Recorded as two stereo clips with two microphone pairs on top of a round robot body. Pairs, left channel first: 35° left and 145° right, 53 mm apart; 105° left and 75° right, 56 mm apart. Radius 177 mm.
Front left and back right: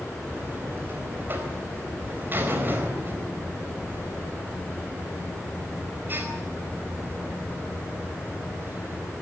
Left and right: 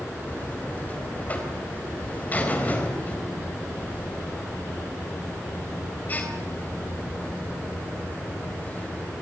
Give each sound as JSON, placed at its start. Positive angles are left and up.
{"t": 0.3, "sound": "a buzzer", "azimuth_deg": 165, "distance_m": 4.0}